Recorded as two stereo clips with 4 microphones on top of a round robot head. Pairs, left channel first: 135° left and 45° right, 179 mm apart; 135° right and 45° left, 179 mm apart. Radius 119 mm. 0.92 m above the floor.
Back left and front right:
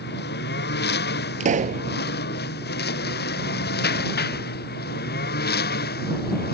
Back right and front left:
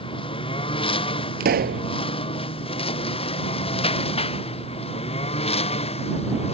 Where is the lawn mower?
165° left; by 6.5 s 170° left.